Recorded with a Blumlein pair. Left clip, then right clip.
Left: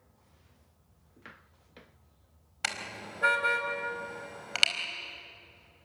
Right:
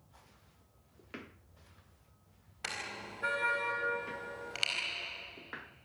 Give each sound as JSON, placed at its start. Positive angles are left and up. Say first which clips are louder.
{"t": 2.6, "sound": "a car horn", "louder": "left 5 dB", "azimuth_deg": 30, "distance_m": 4.0}